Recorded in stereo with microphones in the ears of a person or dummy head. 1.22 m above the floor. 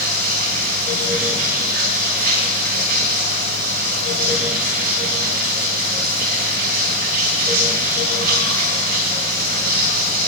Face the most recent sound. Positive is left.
turn(degrees=-45)  # may be behind; listen again after turning